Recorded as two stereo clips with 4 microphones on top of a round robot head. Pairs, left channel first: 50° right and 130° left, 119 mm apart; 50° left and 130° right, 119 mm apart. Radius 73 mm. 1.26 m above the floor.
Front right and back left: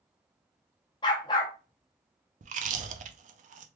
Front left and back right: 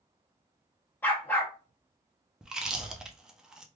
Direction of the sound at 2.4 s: 145° left.